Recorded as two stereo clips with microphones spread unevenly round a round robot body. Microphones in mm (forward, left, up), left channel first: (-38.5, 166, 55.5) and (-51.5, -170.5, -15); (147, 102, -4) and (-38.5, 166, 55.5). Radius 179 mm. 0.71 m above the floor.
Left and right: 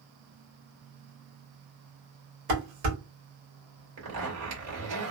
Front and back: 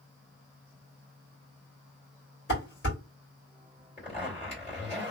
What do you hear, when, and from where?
2.5 s dishes clattering: 65° right, 1.7 m
4.0 s a zipper: 70° right, 1.9 m